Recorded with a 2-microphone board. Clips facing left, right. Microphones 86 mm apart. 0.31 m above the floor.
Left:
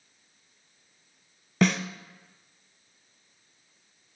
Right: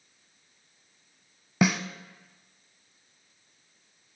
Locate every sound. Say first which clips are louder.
1.6 s a snare drum: left 1 dB; 10° right (ahead or behind), 0.5 m